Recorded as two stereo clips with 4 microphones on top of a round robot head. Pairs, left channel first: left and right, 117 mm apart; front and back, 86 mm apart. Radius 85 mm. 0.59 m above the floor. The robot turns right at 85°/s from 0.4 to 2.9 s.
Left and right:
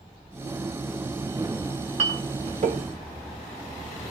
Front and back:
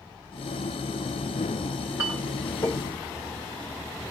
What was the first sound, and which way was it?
A clink, 110° right.